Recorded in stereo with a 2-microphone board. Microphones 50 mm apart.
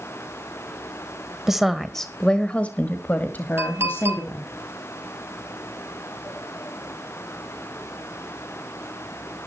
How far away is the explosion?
No explosion in this recording.